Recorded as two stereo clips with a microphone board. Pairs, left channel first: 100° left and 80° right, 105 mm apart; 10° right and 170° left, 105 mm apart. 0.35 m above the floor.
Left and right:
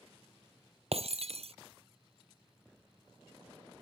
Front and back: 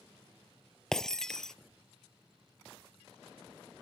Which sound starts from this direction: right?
Breaking glass, at 0.9 s.